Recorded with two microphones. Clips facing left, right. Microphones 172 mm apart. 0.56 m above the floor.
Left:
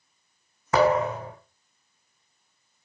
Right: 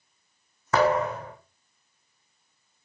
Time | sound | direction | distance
0.7 | a thud | 15° left (ahead or behind) | 2.5 m